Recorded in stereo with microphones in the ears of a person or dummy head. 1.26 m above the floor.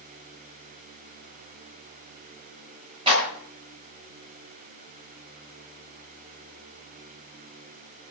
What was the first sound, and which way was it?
A clap, 30° right (ahead or behind).